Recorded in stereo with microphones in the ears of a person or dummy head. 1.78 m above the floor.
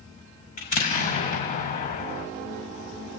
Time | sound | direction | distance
0.6 | an explosion | 40° left (ahead or behind) | 6 m